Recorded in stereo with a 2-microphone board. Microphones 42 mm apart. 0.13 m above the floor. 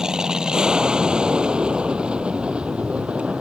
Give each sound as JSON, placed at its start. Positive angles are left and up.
{"t": 0.0, "sound": "an aircraft", "side_deg": -15}